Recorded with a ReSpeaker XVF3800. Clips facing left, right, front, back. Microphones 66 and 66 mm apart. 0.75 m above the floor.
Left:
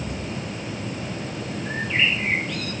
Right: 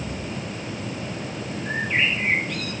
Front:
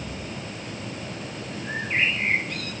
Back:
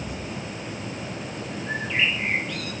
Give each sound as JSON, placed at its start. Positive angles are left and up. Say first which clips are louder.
{"t": 1.6, "sound": "a bird", "louder": "right 1 dB, even", "azimuth_deg": -50, "distance_m": 9.5}